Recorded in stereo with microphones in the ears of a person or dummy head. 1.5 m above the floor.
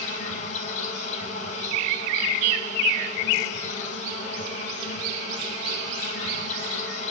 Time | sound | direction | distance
0.0 | an insect | 45° left (ahead or behind) | 5 m